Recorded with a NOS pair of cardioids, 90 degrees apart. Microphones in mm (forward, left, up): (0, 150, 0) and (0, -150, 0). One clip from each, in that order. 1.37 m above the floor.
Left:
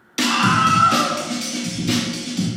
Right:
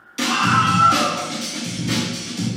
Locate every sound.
0.2 s a scream: 40° left, 1.1 m; by 2.5 s 35° left, 3 m